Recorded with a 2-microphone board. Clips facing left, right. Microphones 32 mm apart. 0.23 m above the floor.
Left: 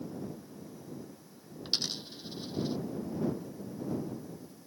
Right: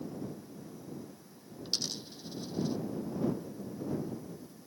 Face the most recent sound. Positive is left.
turn(degrees=30)  # may be behind; listen again after turning